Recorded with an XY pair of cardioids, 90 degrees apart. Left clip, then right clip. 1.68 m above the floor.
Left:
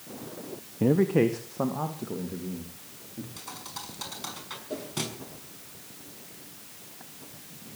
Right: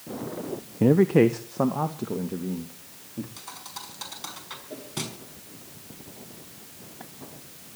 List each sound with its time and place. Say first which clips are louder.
0.8 s a man speaking: right 4 dB; 25° right, 0.9 m; by 3.3 s 40° right, 3.5 m
3.4 s a thud: even; straight ahead, 6 m
4.7 s a whoosh: left 4 dB; 40° left, 4.5 m